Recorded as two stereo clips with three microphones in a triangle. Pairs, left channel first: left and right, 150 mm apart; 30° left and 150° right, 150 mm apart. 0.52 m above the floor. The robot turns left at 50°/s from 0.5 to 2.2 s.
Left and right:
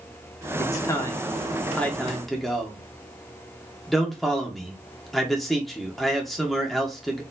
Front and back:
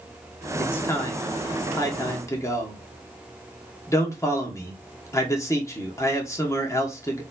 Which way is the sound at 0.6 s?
85° left.